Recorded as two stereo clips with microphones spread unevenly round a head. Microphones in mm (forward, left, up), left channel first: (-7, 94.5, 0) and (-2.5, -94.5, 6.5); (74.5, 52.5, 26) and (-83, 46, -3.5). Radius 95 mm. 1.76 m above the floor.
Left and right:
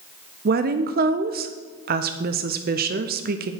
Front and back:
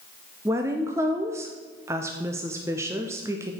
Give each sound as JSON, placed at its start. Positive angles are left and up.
{"t": 0.5, "sound": "a woman speaking", "azimuth_deg": -95, "distance_m": 0.5}